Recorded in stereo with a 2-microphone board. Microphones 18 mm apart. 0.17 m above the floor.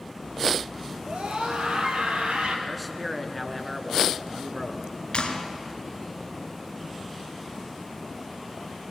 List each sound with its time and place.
1.1 s a scream: 75° right (ahead or behind), 3.5 m
2.7 s a man speaking: 5° left (ahead or behind), 1.6 m
5.1 s a clap: 55° left (ahead or behind), 2 m